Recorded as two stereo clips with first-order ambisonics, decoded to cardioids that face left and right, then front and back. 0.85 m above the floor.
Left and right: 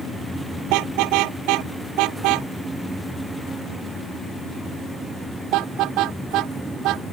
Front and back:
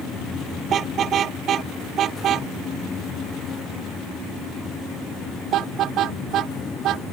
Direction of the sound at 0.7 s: 115° right.